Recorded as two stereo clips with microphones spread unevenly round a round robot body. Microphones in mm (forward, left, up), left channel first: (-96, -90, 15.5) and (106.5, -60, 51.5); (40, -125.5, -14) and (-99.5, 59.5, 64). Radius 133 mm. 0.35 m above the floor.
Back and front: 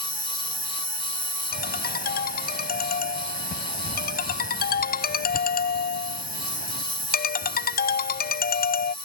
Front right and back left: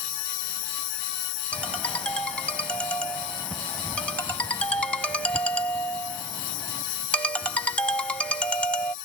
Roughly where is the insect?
Ahead right.